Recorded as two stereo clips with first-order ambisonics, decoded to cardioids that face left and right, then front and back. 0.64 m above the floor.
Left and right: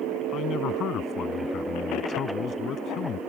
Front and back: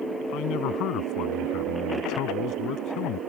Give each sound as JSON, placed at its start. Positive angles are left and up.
{"t": 0.3, "sound": "a man speaking", "azimuth_deg": 35}